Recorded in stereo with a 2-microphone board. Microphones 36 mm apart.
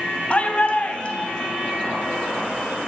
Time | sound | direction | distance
0.3 | a shout | 35° left (ahead or behind) | 3 m